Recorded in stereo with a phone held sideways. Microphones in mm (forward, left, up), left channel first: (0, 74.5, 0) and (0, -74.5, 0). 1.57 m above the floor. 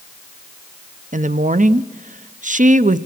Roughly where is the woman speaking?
Right.